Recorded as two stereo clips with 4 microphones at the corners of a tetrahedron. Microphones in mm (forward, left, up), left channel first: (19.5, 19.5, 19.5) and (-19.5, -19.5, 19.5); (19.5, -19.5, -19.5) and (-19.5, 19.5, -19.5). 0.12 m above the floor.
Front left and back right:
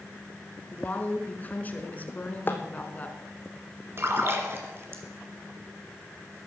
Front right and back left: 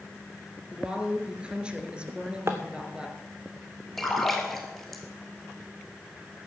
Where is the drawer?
100° left, 1.7 m.